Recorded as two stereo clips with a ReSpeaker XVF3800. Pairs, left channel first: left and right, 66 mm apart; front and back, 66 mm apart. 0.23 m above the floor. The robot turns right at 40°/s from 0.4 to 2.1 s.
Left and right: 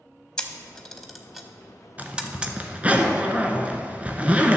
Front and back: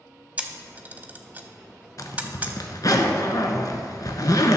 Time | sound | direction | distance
0.4 | a camera shutter | 145° left | 0.7 m
2.0 | a zipper | 25° right | 0.9 m